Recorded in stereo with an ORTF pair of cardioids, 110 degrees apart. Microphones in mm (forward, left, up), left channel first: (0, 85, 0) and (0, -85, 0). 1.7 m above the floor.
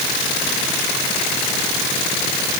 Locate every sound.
Only background noise.